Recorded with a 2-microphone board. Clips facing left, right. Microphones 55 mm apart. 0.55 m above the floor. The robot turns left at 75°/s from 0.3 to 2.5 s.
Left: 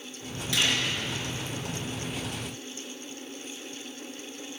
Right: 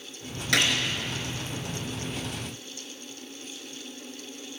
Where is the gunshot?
65° right (ahead or behind), 3.5 m; by 0.7 s 50° right (ahead or behind), 3.5 m.